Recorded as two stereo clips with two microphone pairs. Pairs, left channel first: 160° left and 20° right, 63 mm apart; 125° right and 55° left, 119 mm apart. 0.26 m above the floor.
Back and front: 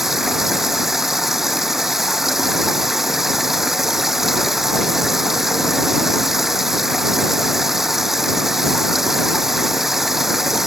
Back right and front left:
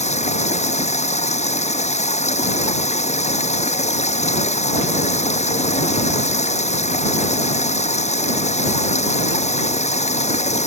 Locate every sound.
0.0 s running water: 105° right